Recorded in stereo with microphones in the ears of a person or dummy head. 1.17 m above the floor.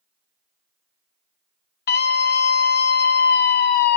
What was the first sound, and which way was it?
A scream, 45° left (ahead or behind).